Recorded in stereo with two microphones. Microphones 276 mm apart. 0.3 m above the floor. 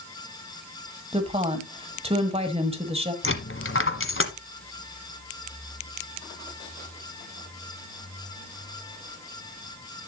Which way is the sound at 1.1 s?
20° right (ahead or behind).